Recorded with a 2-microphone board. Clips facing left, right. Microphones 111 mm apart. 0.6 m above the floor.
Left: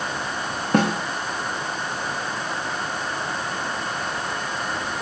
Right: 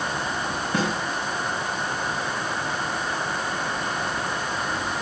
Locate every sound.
0.7 s a snare drum: 70° left (ahead or behind), 3 m